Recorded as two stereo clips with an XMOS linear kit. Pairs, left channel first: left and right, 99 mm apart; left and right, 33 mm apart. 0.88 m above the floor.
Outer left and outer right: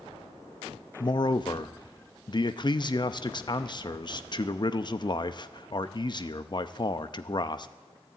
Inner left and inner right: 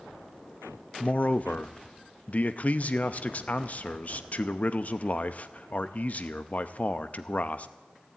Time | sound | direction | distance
1.0 | a man speaking | 45° left (ahead or behind) | 0.6 m